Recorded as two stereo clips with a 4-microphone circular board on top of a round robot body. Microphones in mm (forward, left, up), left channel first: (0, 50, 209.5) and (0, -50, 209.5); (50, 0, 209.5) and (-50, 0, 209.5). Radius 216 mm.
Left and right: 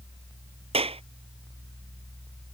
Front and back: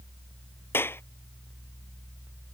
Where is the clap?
70° right.